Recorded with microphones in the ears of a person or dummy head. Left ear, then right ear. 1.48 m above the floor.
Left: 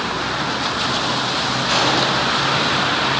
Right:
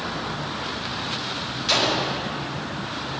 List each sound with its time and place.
1.7 s a gunshot: 25° right (ahead or behind), 1.2 m